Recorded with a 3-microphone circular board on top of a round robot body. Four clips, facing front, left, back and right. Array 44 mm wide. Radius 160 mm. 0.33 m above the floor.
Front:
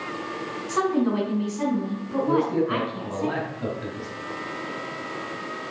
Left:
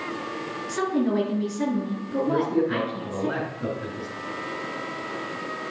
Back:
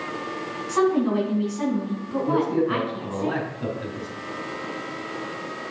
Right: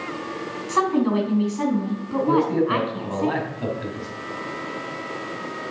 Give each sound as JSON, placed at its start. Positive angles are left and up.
{"t": 0.7, "sound": "a woman speaking", "azimuth_deg": -85, "distance_m": 4.5}
{"t": 2.3, "sound": "a man speaking", "azimuth_deg": -85, "distance_m": 3.5}